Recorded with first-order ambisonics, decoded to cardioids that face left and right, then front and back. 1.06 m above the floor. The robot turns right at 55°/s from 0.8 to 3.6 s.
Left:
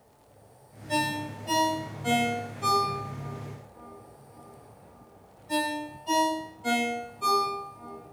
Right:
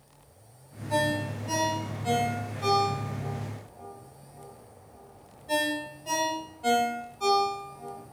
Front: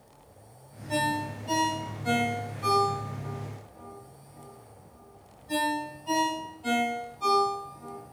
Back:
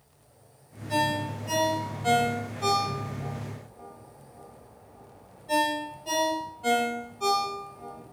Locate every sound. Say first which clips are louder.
0.9 s a ringtone: right 1 dB, back 2 dB; 85° left, 1.7 m; by 8.0 s 125° right, 1.7 m